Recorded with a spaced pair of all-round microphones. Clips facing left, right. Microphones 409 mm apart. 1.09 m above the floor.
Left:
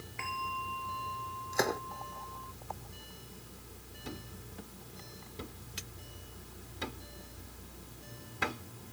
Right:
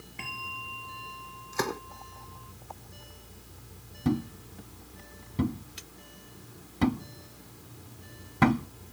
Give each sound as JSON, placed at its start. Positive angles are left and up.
{"t": 0.2, "sound": "a bell", "side_deg": -45}
{"t": 1.5, "sound": "a gunshot", "side_deg": -15}
{"t": 4.0, "sound": "a thud", "side_deg": -80}